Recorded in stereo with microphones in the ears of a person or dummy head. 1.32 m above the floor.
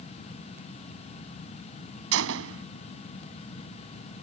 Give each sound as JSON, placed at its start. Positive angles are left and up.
{"t": 2.1, "sound": "a gunshot", "side_deg": -75}